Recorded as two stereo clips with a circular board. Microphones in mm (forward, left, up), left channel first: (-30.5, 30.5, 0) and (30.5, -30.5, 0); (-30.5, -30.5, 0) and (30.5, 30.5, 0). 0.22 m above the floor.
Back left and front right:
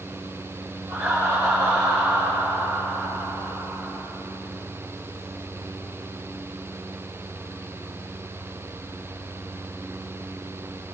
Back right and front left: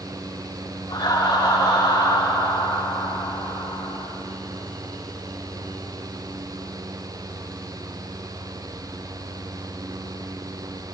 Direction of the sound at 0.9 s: 95° right.